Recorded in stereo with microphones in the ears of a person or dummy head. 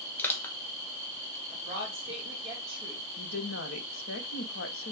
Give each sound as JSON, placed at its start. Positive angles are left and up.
{"t": 0.2, "sound": "crushing", "side_deg": 15, "distance_m": 1.0}
{"t": 1.5, "sound": "a woman speaking", "side_deg": -25, "distance_m": 2.5}
{"t": 3.2, "sound": "a woman speaking", "side_deg": 75, "distance_m": 1.0}